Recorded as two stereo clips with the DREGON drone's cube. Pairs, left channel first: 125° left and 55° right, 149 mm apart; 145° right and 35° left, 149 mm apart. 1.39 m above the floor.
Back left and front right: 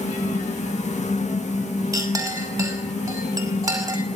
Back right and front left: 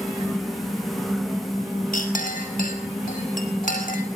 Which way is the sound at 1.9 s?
125° right.